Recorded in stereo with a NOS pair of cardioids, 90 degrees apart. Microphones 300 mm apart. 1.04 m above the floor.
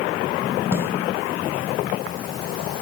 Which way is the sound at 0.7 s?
10° right.